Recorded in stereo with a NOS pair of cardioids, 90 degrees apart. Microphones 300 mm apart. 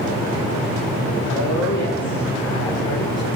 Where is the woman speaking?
70° left, 8 m; by 3.3 s 60° left, 8.5 m.